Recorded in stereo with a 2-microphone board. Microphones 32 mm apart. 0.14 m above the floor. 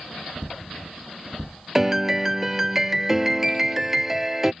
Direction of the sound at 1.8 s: 10° right (ahead or behind).